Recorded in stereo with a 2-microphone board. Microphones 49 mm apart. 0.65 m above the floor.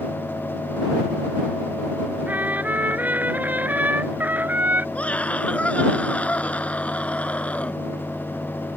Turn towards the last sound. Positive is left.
turn(degrees=30)  # may be behind; listen again after turning